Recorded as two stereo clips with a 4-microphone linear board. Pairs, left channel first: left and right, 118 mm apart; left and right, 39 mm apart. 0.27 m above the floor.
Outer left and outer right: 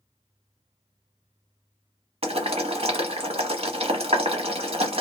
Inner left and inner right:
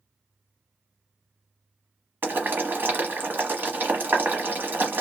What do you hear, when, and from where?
2.2 s boiling: 60° right (ahead or behind), 0.9 m